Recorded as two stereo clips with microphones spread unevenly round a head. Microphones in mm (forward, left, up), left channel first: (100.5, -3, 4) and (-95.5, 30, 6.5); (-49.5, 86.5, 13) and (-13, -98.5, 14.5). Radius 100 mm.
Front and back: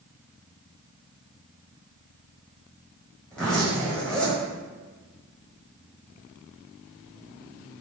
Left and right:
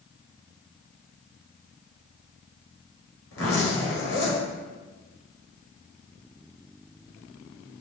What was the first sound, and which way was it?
A zipper, 75° left.